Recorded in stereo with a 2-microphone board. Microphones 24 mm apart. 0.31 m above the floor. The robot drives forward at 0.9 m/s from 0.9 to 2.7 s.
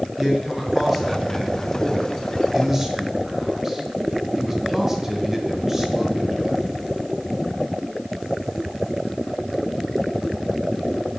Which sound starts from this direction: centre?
A man speaking, at 0.2 s.